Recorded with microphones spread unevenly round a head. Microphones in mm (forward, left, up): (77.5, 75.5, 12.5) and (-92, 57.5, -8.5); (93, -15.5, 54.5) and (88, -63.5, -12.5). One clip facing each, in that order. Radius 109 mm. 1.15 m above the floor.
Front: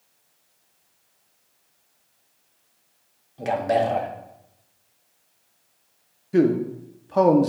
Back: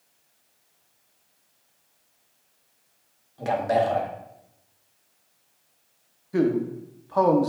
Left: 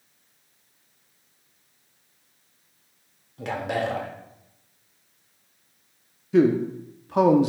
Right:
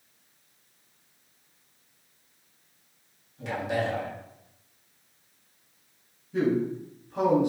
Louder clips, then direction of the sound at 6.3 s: Front 3 dB, left 6 dB; 70° left.